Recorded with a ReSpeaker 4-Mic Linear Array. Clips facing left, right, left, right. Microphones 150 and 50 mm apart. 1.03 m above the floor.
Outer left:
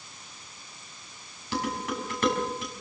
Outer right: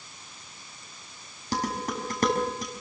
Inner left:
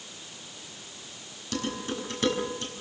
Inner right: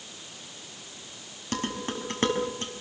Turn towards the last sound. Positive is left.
turn(degrees=-40)  # may be behind; listen again after turning